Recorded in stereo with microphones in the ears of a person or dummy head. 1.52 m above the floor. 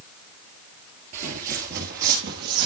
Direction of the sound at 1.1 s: 40° right (ahead or behind).